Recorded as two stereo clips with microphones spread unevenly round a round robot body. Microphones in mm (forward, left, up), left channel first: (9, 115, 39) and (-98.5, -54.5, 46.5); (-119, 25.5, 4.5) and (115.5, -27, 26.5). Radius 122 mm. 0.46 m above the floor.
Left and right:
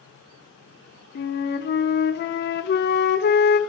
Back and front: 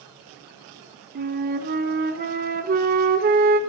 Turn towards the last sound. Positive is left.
turn(degrees=40)